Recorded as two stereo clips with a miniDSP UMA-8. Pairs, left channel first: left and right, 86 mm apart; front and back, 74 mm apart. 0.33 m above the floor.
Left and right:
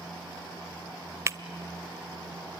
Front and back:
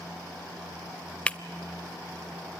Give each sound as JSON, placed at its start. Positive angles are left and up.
{"t": 1.3, "sound": "breaking glass", "azimuth_deg": -65, "distance_m": 0.5}